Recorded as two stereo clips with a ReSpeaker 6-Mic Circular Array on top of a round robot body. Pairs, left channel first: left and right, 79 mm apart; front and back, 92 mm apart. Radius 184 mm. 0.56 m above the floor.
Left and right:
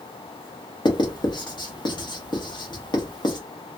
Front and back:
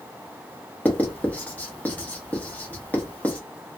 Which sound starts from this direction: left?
Writing, at 0.8 s.